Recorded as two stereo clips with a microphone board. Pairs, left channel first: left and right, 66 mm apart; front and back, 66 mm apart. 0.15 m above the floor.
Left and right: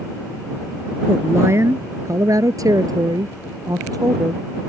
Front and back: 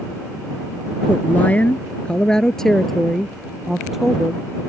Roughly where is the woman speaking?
Ahead right.